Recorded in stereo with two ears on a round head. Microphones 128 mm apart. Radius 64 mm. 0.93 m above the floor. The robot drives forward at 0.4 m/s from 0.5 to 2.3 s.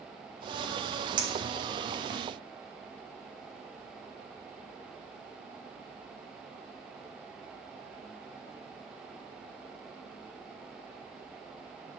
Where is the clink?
35° right (ahead or behind), 1.5 m; by 2.2 s 45° right (ahead or behind), 1.2 m.